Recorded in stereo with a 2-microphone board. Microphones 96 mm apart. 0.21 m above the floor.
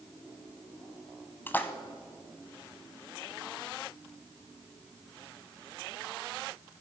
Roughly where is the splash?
Left.